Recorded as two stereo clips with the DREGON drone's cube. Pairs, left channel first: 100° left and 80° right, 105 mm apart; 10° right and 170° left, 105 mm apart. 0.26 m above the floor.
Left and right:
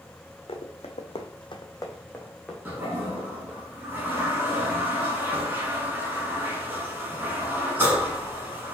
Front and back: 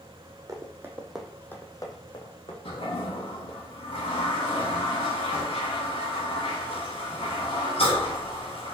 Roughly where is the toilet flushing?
Ahead.